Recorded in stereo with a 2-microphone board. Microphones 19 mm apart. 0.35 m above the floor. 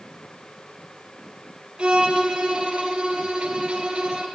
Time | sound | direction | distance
1.8 | a violin | 65° right (ahead or behind) | 1.5 m